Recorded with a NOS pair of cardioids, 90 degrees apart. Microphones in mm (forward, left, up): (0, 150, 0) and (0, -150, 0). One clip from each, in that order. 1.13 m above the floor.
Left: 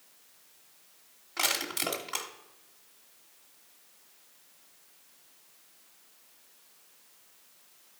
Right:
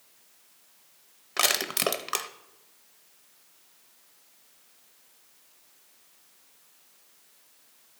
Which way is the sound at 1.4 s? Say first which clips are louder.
Right 4 dB; 45° right.